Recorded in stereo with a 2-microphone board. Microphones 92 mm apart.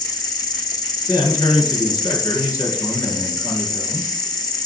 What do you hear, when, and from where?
0.0 s an insect: 45° left (ahead or behind), 0.9 m
1.1 s a man speaking: 40° left (ahead or behind), 3.5 m